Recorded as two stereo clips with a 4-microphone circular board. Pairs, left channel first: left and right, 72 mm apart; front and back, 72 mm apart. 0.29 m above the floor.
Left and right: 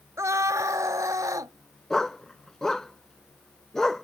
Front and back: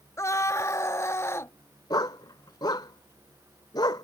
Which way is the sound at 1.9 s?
5° left.